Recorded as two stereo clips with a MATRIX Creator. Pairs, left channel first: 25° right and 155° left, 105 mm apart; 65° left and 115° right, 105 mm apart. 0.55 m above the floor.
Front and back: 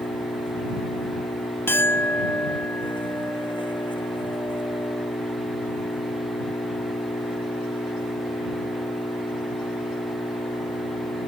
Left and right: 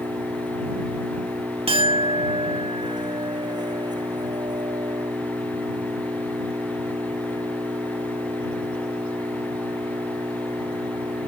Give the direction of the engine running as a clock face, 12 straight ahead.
2 o'clock.